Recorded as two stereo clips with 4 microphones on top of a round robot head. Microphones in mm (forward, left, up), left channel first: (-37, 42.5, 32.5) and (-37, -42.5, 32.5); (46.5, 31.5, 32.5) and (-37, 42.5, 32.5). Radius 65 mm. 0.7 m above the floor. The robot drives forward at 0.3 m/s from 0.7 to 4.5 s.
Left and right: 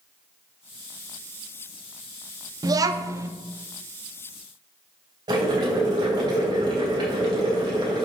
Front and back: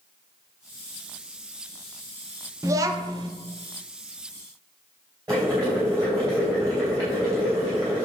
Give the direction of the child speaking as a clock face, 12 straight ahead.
4 o'clock.